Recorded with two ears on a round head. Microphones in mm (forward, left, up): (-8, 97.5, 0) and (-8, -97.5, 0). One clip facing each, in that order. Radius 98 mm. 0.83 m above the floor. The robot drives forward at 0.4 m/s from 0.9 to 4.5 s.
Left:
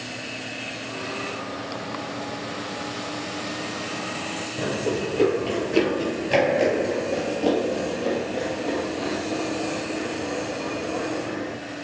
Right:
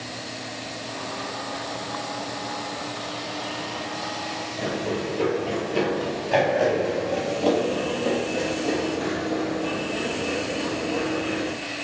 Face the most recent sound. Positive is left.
turn(degrees=-25)  # may be behind; listen again after turning